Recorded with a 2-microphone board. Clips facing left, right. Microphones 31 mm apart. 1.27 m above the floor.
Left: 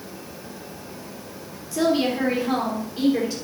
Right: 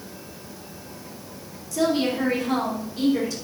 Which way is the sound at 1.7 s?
20° left (ahead or behind).